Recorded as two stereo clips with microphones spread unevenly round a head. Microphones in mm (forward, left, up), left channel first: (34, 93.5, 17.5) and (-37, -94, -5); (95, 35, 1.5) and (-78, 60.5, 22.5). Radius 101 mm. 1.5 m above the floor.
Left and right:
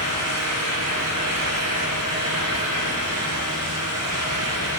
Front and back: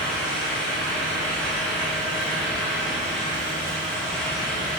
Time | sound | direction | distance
0.0 | a fan | 100° right | 1.4 m